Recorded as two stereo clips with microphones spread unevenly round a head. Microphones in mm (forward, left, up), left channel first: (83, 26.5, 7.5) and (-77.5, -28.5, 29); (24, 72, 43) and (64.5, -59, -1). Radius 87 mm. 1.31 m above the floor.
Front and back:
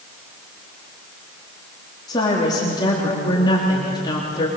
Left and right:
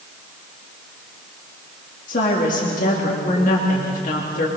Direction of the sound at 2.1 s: 85° left.